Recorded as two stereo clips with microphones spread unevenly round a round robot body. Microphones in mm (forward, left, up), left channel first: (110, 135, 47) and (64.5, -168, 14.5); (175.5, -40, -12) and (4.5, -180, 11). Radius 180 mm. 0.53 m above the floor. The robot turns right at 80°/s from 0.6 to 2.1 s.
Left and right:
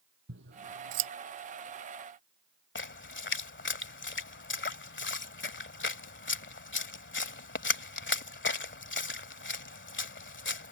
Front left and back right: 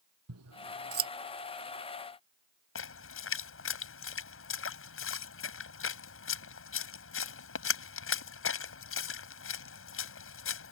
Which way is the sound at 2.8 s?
30° left.